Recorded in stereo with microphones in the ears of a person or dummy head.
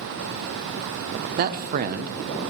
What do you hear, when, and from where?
1.4 s a man speaking: 45° right (ahead or behind), 0.5 m